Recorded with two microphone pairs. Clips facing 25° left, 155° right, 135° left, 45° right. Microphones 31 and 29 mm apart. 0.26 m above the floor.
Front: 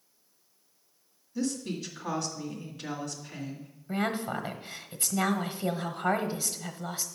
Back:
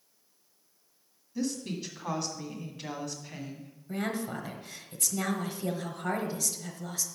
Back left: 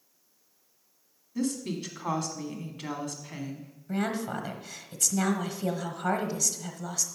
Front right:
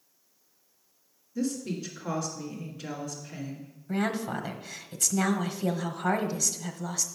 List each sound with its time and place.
1.4 s a woman speaking: 125° left, 1.8 m
3.9 s a woman speaking: 40° left, 1.1 m